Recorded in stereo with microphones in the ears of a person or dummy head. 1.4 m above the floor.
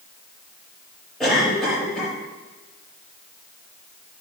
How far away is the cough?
About 5 m.